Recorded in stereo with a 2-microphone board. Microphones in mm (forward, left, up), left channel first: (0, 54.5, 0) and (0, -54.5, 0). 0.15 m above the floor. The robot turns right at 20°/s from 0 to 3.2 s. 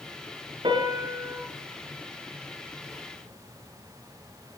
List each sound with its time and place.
0.6 s a piano: 45° right (ahead or behind), 1.9 m; by 1.4 s 40° right (ahead or behind), 1.9 m